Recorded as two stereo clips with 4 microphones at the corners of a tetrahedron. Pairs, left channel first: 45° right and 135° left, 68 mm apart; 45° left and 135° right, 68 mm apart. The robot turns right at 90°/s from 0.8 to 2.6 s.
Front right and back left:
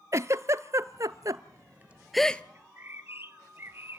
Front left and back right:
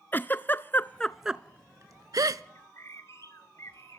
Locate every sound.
0.1 s a giggle: 100° left, 0.6 m; by 2.4 s 110° right, 0.6 m
2.5 s a bird: 80° left, 1.1 m; by 4.0 s 85° left, 1.1 m